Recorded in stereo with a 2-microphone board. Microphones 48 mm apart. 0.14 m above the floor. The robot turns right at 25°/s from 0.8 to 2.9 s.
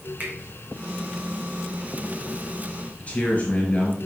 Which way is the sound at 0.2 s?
40° right (ahead or behind).